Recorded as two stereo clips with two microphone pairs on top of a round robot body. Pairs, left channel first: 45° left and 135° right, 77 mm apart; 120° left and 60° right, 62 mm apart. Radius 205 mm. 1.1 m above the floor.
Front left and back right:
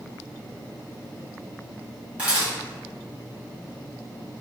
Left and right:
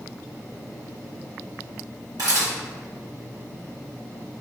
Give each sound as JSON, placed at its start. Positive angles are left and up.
{"t": 2.2, "sound": "a camera shutter", "azimuth_deg": -65, "distance_m": 1.8}